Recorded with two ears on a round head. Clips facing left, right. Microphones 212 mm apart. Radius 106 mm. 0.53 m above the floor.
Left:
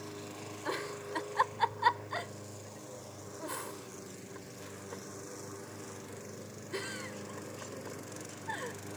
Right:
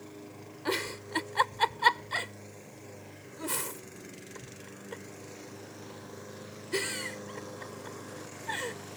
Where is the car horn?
No car horn in this recording.